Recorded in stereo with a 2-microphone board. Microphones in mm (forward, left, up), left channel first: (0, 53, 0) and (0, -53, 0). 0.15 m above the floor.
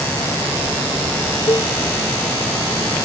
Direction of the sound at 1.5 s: 40° left (ahead or behind).